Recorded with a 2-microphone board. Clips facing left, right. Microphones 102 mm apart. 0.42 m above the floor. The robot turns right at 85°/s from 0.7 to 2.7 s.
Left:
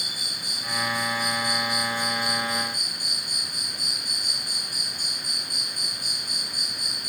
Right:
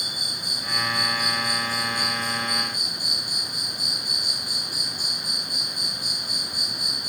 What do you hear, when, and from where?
0.0 s an insect: 120° right, 1.5 m; by 7.1 s 50° left, 1.5 m